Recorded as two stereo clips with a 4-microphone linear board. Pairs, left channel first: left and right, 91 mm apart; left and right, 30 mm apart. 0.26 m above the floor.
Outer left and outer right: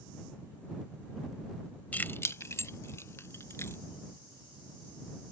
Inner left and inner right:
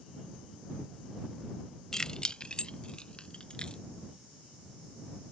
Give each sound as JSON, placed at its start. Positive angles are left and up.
{"t": 1.9, "sound": "keys jangling", "side_deg": 15}